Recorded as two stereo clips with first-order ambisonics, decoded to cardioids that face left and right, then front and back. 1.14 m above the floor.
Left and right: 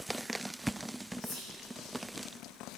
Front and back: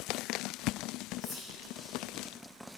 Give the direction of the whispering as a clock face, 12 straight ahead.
10 o'clock.